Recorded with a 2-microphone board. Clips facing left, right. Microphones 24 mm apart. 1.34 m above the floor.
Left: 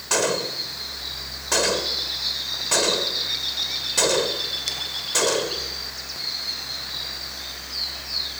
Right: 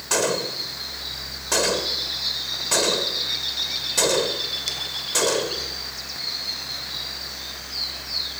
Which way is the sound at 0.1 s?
5° left (ahead or behind).